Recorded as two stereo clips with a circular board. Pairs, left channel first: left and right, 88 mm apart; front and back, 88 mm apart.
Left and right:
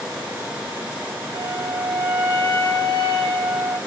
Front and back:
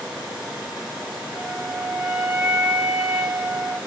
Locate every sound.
1.3 s a flute: 100° left, 1.6 m